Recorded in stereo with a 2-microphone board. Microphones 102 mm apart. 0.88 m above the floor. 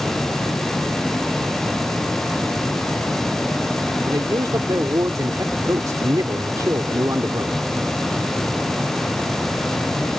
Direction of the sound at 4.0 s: 35° right (ahead or behind).